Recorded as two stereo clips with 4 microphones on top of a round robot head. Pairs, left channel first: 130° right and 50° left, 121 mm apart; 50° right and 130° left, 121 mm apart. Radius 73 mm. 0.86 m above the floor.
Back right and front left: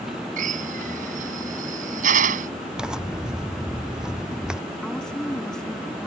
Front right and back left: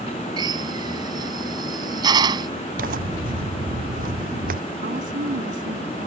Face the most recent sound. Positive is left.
turn(degrees=145)